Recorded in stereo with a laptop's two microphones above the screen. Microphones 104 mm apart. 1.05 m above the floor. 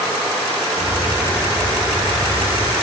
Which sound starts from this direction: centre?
A bird, at 0.8 s.